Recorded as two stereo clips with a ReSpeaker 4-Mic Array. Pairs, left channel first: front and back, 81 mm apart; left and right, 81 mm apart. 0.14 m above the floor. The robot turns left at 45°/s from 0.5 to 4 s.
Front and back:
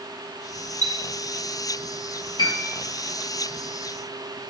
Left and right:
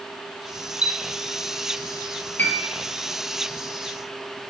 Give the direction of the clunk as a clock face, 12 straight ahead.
I don't hear a clunk.